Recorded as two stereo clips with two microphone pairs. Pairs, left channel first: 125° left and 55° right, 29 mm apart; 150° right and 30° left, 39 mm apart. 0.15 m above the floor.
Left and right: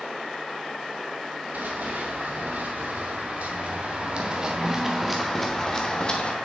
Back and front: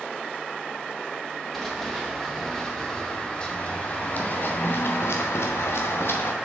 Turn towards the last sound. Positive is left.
turn(degrees=-175)